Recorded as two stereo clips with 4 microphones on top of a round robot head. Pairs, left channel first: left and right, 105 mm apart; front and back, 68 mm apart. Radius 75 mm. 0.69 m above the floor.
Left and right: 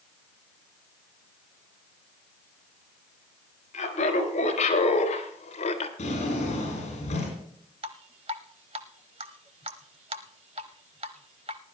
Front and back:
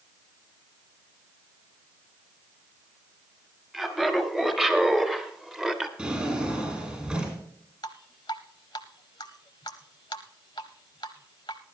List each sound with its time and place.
3.7 s laughter: 95° left, 4.5 m
6.0 s a drawer: 105° left, 8 m
7.8 s dripping: 50° right, 0.6 m